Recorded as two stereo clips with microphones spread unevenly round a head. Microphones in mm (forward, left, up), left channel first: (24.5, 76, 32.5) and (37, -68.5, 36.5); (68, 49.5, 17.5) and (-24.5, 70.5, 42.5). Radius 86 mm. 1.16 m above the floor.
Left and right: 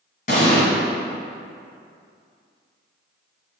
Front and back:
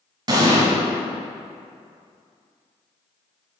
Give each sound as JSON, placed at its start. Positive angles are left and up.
{"t": 0.3, "sound": "an explosion", "azimuth_deg": 140, "distance_m": 2.0}